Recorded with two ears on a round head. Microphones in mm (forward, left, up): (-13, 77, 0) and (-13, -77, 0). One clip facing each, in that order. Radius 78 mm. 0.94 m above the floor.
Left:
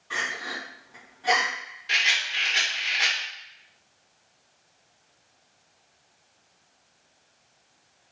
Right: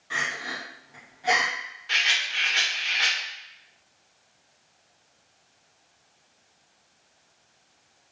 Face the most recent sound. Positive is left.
turn(degrees=20)  # may be behind; listen again after turning